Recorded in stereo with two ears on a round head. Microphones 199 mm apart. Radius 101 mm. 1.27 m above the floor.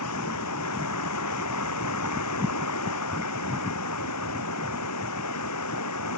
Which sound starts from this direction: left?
Running water, at 0.0 s.